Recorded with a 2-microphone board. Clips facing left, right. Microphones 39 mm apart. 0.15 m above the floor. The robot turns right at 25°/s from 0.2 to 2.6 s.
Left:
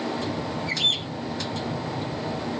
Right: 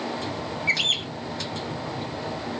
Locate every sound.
0.7 s a bird: 60° right (ahead or behind), 1.1 m; by 1.1 s 55° right (ahead or behind), 1.1 m